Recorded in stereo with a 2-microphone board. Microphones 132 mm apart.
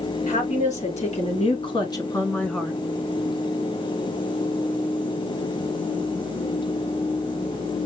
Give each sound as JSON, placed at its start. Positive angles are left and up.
{"t": 0.3, "sound": "a woman speaking", "side_deg": 65, "distance_m": 2.0}